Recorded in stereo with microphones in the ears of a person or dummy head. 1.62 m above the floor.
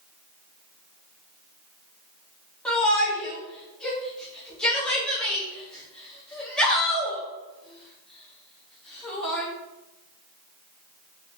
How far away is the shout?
About 1.3 m.